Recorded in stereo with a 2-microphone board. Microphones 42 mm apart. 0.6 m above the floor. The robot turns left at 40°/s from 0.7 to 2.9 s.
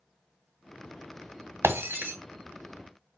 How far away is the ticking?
I don't hear ticking.